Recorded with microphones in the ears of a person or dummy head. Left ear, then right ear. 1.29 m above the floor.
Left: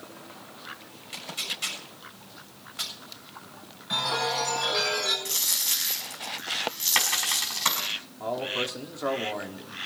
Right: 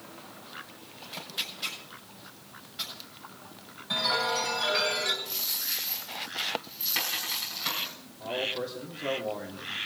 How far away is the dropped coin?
About 5.5 m.